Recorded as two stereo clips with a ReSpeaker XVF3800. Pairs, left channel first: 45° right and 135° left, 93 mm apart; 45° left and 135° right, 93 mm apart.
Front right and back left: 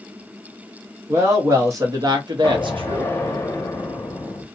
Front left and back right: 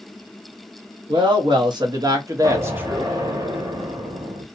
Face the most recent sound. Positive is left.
turn(degrees=-105)